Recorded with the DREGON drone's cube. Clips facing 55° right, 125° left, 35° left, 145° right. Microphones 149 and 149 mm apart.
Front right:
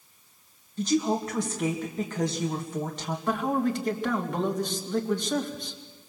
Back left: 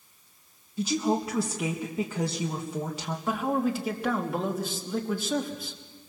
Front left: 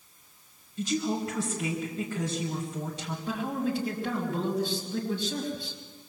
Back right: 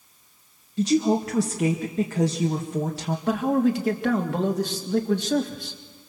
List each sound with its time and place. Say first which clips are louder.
0.8 s a woman speaking: front right 1 dB, back right 8 dB; 155° right, 2 m
3.3 s a man speaking: front right 1 dB, back right 9 dB; 150° right, 3 m